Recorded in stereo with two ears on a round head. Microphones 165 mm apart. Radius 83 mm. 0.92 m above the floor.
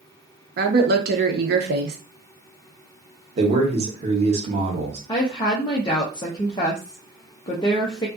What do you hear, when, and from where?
0.6 s a woman speaking: 55° right (ahead or behind), 0.7 m
3.4 s a man speaking: 35° right (ahead or behind), 0.8 m
5.1 s a woman speaking: 25° left (ahead or behind), 0.5 m